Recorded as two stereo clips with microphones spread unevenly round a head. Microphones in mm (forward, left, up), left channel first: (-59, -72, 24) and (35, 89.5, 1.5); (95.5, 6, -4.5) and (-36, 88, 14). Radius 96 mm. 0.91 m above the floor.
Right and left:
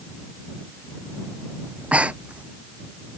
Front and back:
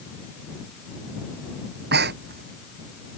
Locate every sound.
1.7 s breathing: 145° left